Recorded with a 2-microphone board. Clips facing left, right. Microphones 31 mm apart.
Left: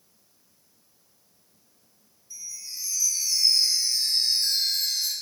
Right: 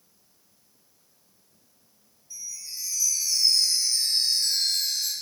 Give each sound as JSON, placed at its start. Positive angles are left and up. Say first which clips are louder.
{"t": 2.3, "sound": "a chime", "louder": "even", "side_deg": 0, "distance_m": 0.8}